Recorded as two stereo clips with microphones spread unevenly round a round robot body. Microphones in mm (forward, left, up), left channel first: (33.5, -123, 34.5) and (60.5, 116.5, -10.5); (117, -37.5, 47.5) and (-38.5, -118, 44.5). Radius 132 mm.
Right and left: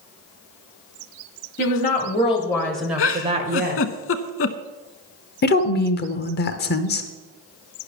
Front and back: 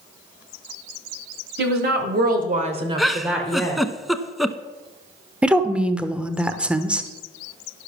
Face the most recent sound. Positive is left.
turn(degrees=-75)